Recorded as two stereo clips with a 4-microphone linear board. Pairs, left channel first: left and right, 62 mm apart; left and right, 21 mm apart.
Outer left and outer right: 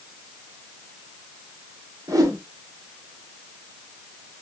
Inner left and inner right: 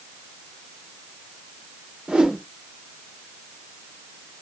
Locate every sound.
2.1 s a whoosh: 70° right (ahead or behind), 0.6 m